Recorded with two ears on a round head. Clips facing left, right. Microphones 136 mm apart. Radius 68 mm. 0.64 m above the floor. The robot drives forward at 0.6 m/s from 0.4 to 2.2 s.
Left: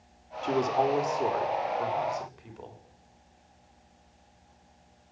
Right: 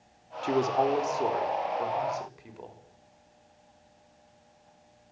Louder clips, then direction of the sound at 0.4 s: Even; 10° right (ahead or behind).